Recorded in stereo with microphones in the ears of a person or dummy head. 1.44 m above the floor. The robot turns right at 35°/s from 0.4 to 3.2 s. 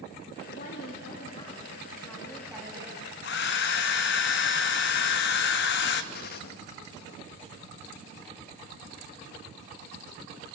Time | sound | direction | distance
0.5 | a woman speaking | 115° left | 2.5 m
3.2 | a hair dryer | 60° left (ahead or behind) | 0.9 m
6.1 | a gunshot | 60° left (ahead or behind) | 1.1 m